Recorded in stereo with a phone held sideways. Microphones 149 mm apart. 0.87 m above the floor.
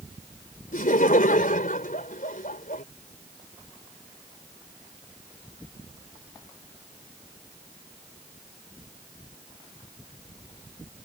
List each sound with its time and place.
0.7 s laughter: 70° left (ahead or behind)